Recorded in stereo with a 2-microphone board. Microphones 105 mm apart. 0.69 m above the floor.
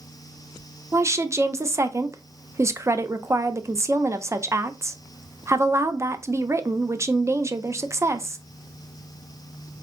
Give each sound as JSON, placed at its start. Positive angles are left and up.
{"t": 0.9, "sound": "a woman speaking", "side_deg": -25, "distance_m": 0.5}